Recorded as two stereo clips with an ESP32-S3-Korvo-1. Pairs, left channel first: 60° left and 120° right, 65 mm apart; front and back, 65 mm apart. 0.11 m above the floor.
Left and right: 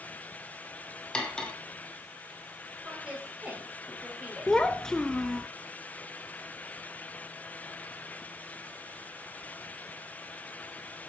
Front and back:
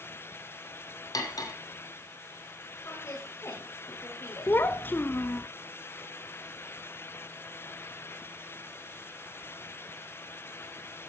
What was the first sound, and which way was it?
Cutlery clinking, 15° right.